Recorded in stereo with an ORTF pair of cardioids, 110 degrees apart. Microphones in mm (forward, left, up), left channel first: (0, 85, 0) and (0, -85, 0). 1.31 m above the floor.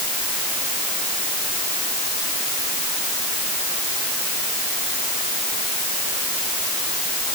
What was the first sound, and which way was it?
Only background noise.